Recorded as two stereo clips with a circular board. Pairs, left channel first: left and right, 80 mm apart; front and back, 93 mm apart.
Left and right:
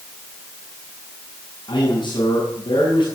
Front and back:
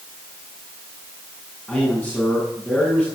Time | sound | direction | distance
1.7 | a man speaking | 90° left | 7.5 m